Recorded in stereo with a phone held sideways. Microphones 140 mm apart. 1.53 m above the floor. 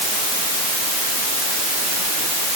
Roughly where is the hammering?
I don't hear hammering.